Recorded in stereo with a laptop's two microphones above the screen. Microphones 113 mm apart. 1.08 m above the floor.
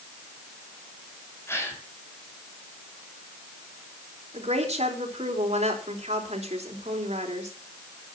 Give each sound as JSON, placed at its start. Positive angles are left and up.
{"t": 1.5, "sound": "a gasp", "side_deg": 25, "distance_m": 2.5}
{"t": 4.3, "sound": "a woman speaking", "side_deg": -80, "distance_m": 4.0}